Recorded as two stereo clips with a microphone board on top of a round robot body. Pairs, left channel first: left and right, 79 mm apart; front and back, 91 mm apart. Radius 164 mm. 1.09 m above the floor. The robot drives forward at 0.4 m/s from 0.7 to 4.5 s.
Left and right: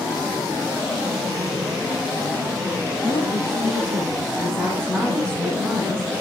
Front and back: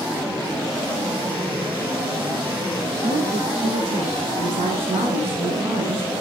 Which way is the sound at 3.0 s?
170° left.